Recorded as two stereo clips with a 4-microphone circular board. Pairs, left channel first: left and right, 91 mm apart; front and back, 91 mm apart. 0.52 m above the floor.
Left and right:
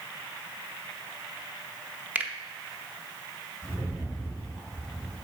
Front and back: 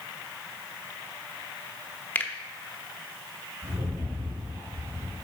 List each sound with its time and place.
2.1 s a finger snap: 40° right, 0.9 m
3.6 s a rattle: 160° left, 3.5 m